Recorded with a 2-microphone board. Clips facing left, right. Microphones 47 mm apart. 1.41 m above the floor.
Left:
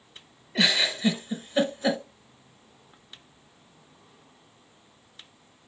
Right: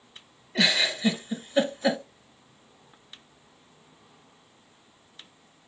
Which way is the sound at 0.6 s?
5° left (ahead or behind).